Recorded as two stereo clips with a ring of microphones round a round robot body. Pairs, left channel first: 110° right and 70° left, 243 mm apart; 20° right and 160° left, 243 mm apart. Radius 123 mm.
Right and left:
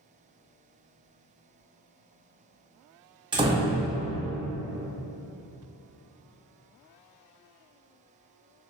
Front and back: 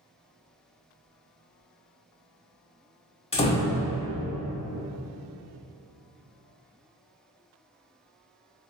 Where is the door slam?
15° left, 0.5 m.